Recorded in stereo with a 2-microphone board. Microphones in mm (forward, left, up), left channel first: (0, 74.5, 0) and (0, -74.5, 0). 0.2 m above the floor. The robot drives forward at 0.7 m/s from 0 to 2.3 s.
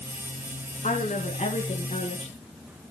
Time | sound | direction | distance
0.8 | a woman speaking | 55° left (ahead or behind) | 1.8 m